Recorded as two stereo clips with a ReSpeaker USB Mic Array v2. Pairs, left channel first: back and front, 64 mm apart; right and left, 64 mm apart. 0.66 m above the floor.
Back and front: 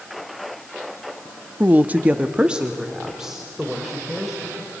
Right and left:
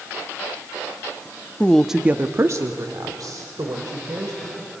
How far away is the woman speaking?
About 0.8 m.